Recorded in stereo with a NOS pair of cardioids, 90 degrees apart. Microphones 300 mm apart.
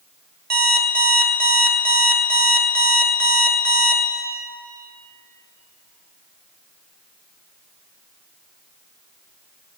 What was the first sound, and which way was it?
An alarm clock, 35° right.